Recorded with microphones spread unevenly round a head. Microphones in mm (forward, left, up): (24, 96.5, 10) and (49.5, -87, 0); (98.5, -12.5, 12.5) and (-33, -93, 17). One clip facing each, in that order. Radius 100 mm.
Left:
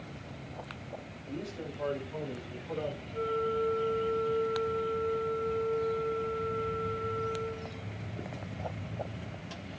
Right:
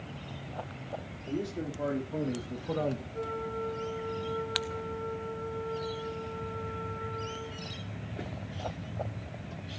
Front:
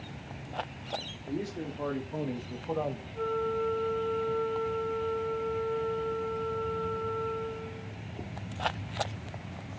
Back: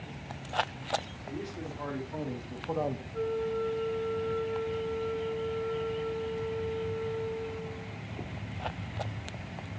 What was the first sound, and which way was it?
A man speaking, 25° right.